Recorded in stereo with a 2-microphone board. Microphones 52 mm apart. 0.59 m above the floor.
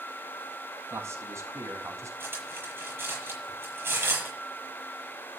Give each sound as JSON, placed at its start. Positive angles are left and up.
{"t": 0.9, "sound": "a man speaking", "side_deg": -55, "distance_m": 4.5}
{"t": 2.2, "sound": "cutlery clinking", "side_deg": -45, "distance_m": 7.5}